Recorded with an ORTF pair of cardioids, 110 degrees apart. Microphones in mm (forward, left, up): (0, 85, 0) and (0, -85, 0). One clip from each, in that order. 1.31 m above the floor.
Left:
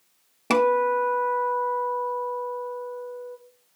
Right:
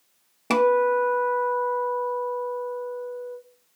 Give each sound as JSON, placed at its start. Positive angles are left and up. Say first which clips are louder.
{"t": 0.5, "sound": "a guitar", "louder": "right 1 dB", "azimuth_deg": 5, "distance_m": 0.6}